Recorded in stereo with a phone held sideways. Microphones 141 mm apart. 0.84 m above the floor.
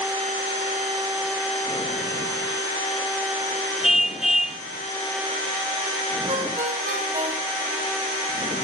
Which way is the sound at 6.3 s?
75° right (ahead or behind).